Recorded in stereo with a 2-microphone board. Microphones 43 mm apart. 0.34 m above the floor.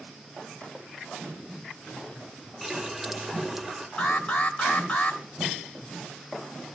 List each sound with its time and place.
2.6 s a running tap: 5° right (ahead or behind), 0.7 m
4.0 s an alarm: 35° left (ahead or behind), 1.4 m